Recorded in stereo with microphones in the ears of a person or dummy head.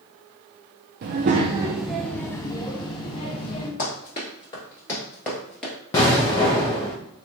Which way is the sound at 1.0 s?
40° right (ahead or behind).